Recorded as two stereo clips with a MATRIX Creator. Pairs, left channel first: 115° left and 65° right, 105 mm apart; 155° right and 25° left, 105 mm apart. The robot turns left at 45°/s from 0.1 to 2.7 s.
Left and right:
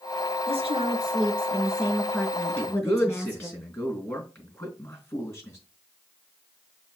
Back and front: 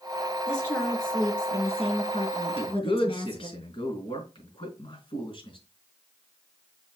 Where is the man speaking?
170° right, 3.5 m; by 5.6 s straight behind, 3.5 m.